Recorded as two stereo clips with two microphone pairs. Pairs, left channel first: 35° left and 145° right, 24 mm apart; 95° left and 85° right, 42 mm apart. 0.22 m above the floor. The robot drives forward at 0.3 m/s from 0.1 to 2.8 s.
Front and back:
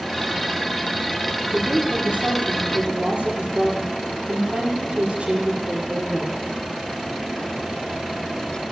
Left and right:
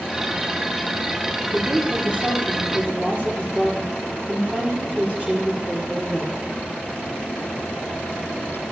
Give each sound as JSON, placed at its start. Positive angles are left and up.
{"t": 1.5, "sound": "a woman speaking", "azimuth_deg": -135, "distance_m": 4.5}